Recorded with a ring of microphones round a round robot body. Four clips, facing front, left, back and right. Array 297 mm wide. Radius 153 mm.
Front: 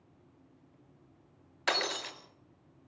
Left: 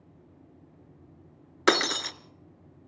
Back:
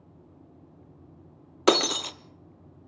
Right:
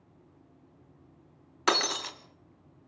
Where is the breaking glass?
155° left, 0.9 m.